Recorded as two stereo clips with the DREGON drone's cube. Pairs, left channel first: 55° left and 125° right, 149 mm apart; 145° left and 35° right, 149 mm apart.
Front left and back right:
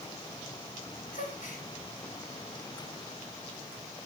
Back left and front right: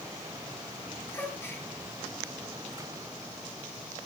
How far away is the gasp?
About 3 m.